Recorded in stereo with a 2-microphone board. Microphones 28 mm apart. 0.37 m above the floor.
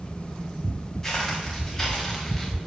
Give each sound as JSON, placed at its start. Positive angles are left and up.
{"t": 1.0, "sound": "footsteps", "side_deg": 25, "distance_m": 6.5}